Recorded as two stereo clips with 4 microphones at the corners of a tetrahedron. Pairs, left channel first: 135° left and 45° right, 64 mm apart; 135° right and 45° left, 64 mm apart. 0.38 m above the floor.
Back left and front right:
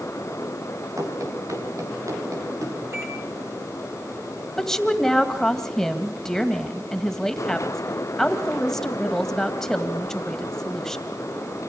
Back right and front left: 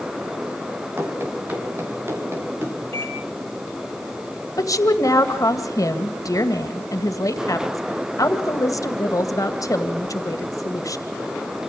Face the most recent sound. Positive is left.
turn(degrees=-140)